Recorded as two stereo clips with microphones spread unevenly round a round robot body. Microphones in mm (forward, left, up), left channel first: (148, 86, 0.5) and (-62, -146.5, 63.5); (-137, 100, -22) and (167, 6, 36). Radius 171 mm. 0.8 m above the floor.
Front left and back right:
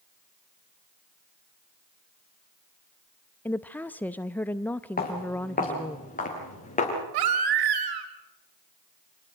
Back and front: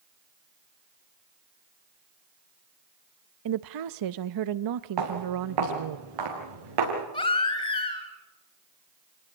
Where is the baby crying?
120° right, 2.5 m.